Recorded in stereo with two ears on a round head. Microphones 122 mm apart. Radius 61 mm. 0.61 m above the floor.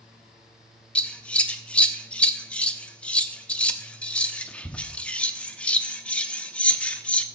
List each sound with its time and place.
0.9 s scissors: 10° left (ahead or behind), 0.7 m